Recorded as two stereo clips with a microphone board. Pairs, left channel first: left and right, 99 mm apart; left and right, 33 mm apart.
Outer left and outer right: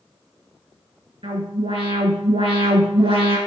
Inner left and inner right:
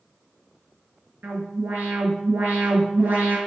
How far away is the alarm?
About 4 m.